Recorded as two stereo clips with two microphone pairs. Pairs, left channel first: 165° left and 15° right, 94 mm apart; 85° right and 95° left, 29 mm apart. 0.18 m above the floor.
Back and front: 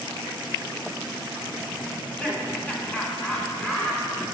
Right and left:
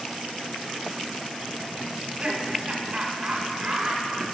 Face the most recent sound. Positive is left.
turn(degrees=100)